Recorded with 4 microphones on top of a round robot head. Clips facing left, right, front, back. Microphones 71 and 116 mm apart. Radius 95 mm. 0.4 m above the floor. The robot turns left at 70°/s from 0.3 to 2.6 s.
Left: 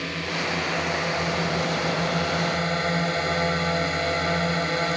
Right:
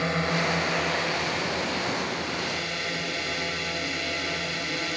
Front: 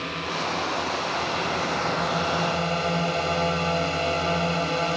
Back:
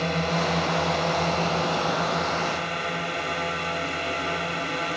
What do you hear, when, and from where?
0.0 s a drone: 145° right; by 5.0 s 55° left